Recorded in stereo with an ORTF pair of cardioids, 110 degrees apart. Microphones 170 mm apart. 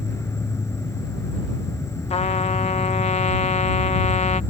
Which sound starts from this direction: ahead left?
A trumpet, at 2.1 s.